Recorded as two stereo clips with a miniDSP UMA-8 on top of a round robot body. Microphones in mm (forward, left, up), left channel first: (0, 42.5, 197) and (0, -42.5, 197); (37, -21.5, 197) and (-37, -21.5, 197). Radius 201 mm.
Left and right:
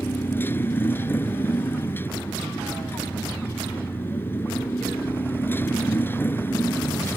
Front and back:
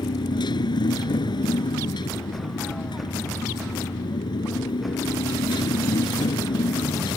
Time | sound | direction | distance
0.0 | a motorcycle | 25° left | ?